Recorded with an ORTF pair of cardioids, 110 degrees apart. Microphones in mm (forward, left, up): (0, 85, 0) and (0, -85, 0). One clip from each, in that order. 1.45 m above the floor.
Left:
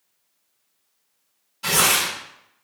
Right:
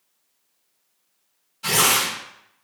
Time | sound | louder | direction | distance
1.6 | tearing paper | even | 15° left | 1.7 m